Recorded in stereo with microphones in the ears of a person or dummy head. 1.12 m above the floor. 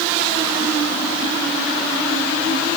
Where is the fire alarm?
I don't hear a fire alarm.